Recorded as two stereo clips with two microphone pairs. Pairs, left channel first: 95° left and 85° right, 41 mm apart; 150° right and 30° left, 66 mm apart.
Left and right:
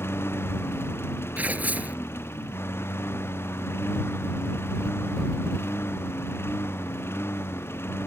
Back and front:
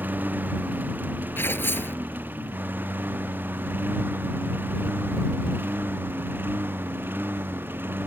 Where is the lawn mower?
90° left; by 8.1 s 85° left.